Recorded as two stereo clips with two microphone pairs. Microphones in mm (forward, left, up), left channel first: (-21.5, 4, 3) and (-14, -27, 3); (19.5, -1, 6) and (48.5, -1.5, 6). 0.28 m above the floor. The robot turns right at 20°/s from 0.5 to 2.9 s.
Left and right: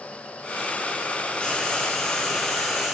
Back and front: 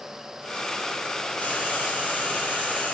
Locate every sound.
1.4 s frying: 170° left, 1.7 m; by 3.0 s 160° right, 1.7 m